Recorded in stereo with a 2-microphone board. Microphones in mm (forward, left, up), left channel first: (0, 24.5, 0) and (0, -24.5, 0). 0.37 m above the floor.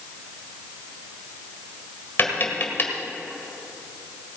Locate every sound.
2.2 s tapping: 45° left (ahead or behind), 1.7 m